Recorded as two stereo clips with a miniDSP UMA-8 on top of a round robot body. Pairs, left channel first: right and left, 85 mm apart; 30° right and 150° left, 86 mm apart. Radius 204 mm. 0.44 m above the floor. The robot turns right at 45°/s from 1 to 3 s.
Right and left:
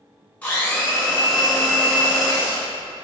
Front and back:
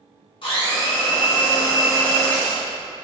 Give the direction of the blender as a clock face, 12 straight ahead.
1 o'clock.